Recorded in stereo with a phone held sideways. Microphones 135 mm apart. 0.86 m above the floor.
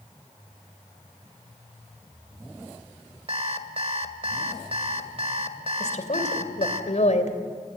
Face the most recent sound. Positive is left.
turn(degrees=60)  # may be behind; listen again after turning